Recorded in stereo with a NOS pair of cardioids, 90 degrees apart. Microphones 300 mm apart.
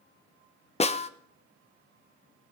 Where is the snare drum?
20° left, 0.9 m.